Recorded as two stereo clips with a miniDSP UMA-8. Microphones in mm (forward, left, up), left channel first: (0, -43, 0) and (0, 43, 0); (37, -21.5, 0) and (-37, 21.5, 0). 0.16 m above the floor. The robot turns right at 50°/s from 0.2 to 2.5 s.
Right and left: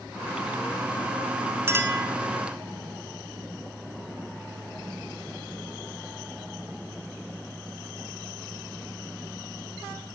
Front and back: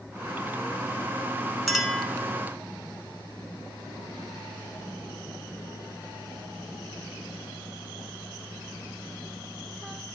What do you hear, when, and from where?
1.7 s a clink: 50° left, 1.2 m; by 2.1 s 75° left, 1.2 m